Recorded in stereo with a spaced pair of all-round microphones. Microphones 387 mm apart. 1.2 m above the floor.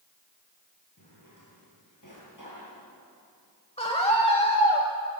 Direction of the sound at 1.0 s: 50° left (ahead or behind).